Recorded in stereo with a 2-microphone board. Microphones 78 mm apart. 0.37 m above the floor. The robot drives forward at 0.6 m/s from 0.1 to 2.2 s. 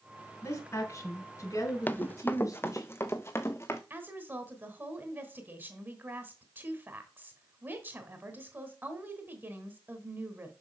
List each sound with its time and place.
0.4 s a woman speaking: 35° left (ahead or behind), 4 m; by 2.9 s 40° left (ahead or behind), 3.5 m
1.9 s running footsteps: 25° left (ahead or behind), 0.5 m; by 3.8 s 35° left (ahead or behind), 1.7 m
3.9 s a woman speaking: 25° right (ahead or behind), 2.5 m